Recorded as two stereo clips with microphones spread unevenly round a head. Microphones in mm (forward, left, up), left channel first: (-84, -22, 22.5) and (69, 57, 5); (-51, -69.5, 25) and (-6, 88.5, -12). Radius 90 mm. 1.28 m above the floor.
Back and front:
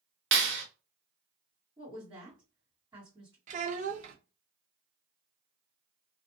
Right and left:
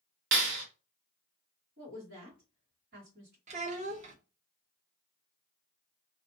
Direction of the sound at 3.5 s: 35° left.